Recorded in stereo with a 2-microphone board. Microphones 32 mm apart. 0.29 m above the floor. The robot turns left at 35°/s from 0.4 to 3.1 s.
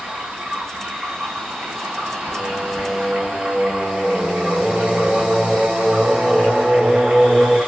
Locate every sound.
0.0 s running water: 45° right, 1.0 m; by 7.7 s 140° right, 1.0 m
2.3 s singing: 20° right (ahead or behind), 0.7 m